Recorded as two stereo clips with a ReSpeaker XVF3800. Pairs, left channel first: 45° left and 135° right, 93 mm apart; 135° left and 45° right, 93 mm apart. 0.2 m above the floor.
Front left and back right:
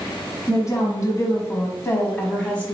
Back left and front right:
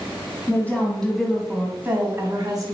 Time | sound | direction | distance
0.5 | a woman speaking | 75° left | 1.2 m